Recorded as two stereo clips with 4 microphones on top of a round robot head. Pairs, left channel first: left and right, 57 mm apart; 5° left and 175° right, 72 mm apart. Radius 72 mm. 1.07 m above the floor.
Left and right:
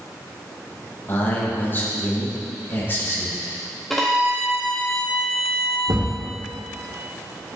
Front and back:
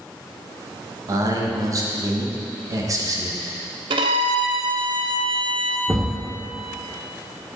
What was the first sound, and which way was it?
A man speaking, 145° left.